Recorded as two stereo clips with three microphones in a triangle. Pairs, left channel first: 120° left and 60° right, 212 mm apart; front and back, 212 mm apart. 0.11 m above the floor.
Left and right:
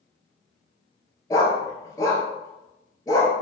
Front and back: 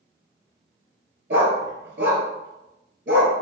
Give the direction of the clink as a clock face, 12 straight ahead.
I don't hear a clink.